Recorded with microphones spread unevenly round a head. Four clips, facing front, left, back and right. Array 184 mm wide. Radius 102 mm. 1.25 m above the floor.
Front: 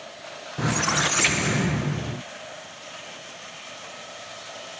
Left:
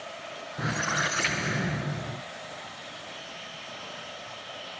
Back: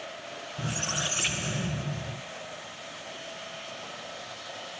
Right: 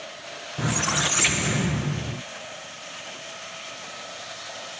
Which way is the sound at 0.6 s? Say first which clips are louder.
Right 3 dB, front 10 dB; 15° right.